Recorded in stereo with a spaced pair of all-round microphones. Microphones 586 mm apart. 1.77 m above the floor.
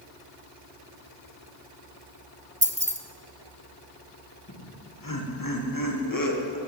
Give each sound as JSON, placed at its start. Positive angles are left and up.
{"t": 2.6, "sound": "keys jangling", "side_deg": -10, "distance_m": 0.8}
{"t": 4.5, "sound": "laughter", "side_deg": 35, "distance_m": 2.0}